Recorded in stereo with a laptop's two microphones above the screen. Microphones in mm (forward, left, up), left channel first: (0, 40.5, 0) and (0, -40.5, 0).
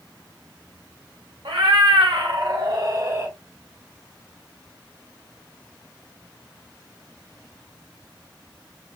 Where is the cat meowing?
75° right (ahead or behind), 0.8 m; by 3.3 s 35° right (ahead or behind), 1.0 m.